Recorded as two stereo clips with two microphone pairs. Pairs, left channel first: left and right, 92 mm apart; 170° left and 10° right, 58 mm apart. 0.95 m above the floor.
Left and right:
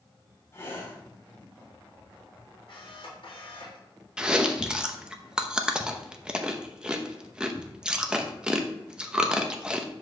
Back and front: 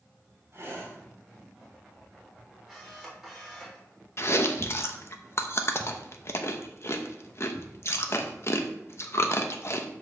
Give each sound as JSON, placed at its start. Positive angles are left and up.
{"t": 0.5, "sound": "breathing", "azimuth_deg": 30, "distance_m": 4.0}
{"t": 2.7, "sound": "a camera shutter", "azimuth_deg": 70, "distance_m": 4.0}
{"t": 4.2, "sound": "chewing", "azimuth_deg": -165, "distance_m": 0.8}